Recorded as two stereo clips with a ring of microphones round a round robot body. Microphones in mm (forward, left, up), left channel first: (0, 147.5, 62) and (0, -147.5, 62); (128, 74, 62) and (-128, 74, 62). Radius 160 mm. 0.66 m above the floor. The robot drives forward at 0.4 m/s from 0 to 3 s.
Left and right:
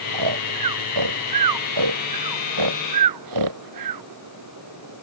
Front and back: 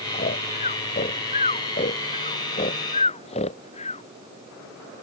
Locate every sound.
0.1 s snoring: 65° right; by 4.0 s 70° right